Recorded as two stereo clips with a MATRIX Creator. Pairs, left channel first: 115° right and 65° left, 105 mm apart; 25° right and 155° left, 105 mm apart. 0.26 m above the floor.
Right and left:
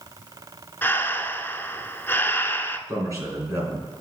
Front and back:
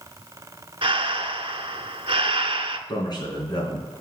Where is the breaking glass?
No breaking glass in this recording.